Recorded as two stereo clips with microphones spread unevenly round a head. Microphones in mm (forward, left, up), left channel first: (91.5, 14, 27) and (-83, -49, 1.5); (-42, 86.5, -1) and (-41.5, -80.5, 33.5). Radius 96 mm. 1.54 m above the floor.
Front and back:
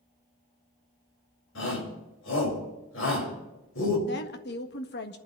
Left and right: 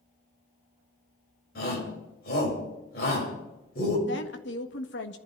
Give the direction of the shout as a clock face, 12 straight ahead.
10 o'clock.